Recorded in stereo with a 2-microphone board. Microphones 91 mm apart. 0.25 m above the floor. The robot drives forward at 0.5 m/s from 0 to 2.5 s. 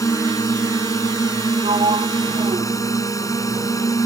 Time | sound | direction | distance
0.0 | a drone | 35° left (ahead or behind) | ?
1.6 | a sliding door | 85° right | ?